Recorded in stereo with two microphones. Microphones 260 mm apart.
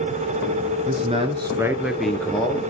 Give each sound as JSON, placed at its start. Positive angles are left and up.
{"t": 0.9, "sound": "a man speaking", "side_deg": -30, "distance_m": 1.2}